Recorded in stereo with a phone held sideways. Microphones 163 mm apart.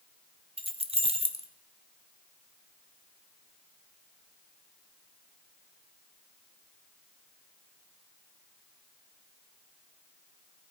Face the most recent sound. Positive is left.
turn(degrees=-40)  # may be behind; listen again after turning